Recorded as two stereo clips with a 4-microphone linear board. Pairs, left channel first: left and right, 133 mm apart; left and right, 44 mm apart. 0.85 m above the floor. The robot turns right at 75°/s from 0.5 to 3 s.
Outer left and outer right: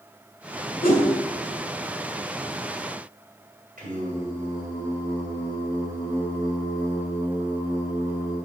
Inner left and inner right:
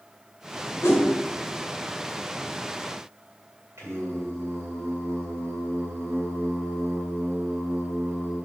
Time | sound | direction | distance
0.8 | a whoosh | 85° left | 1.7 m
3.8 | singing | 85° right | 2.5 m